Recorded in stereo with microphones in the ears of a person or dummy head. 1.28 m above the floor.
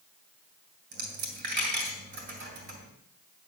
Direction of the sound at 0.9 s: 50° right (ahead or behind).